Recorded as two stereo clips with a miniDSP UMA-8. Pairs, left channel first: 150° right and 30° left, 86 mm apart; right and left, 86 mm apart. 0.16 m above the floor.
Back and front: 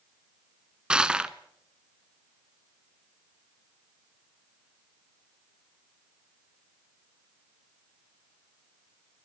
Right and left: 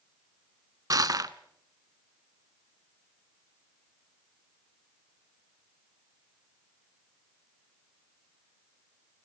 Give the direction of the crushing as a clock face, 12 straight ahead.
8 o'clock.